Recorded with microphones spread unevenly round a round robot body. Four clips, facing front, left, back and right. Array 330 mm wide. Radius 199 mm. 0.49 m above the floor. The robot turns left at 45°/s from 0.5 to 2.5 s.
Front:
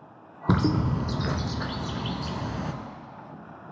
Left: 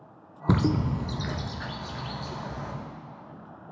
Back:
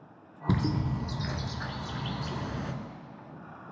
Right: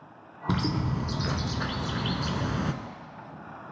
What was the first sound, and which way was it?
A bird, 25° left.